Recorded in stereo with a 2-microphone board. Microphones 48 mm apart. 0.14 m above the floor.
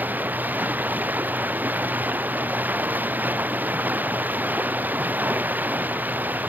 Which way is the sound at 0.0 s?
40° right (ahead or behind).